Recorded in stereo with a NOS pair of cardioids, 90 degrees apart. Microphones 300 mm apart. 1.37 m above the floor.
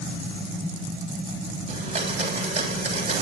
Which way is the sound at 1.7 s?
20° right.